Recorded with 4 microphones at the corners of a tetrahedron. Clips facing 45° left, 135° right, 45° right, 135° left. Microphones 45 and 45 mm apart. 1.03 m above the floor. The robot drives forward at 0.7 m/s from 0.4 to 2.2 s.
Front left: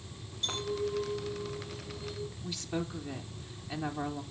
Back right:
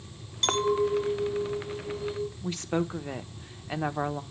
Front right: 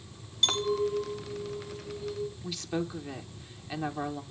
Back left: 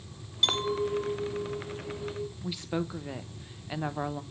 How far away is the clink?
About 0.6 m.